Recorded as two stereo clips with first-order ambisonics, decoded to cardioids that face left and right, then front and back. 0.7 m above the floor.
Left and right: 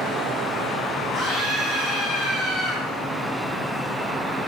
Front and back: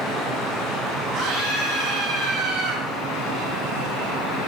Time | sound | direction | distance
1.1 | a scream | 150° left | 5 m